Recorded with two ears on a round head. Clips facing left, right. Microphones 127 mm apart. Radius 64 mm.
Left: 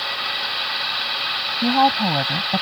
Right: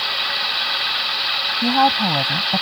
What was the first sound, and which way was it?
A woman speaking, 5° left (ahead or behind).